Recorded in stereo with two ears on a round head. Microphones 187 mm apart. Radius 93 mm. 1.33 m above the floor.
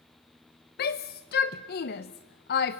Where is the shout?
50° left (ahead or behind), 0.8 m.